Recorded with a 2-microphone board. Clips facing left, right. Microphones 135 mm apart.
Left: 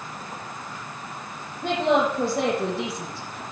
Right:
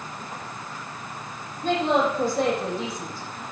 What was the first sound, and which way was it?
A woman speaking, 65° left (ahead or behind).